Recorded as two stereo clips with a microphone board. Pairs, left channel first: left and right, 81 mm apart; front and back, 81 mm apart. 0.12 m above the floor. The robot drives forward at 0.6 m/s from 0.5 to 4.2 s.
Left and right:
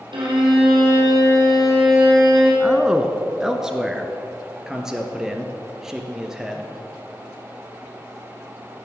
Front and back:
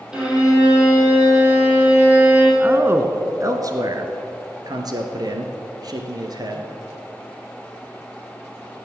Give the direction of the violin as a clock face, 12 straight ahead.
3 o'clock.